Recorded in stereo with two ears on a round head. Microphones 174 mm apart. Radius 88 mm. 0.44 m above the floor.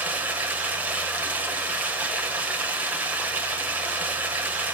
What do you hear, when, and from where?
0.0 s running water: 10° right (ahead or behind), 1.4 m